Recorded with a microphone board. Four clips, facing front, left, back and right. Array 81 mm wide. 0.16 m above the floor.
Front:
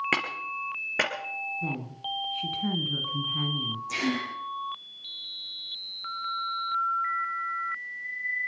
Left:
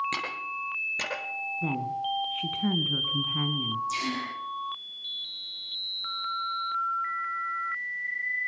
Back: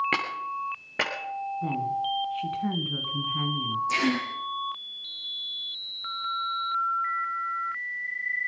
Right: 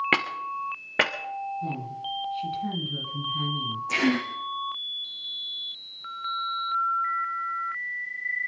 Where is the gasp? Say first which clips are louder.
Right 6 dB, back 2 dB; 105° right, 4 m.